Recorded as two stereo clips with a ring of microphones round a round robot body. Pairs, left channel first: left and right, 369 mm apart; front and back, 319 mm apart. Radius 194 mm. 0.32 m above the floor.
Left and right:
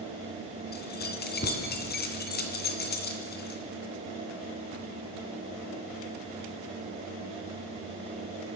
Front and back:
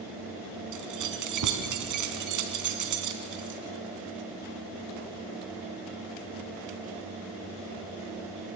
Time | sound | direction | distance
0.7 | keys jangling | 155° left | 2.5 m